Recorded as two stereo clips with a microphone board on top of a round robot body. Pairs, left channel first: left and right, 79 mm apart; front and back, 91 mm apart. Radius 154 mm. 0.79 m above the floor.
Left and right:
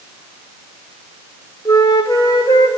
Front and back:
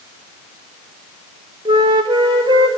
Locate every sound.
1.6 s a flute: 140° left, 0.6 m